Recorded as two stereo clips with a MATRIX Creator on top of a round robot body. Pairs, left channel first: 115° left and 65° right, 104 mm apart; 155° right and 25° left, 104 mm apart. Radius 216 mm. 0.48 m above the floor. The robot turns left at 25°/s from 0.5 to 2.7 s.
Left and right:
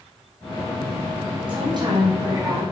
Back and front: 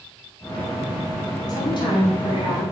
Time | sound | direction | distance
1.5 | a woman speaking | 105° right | 4 m